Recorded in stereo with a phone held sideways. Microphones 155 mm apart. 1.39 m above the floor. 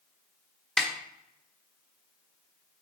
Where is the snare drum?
5° left (ahead or behind), 1.4 m.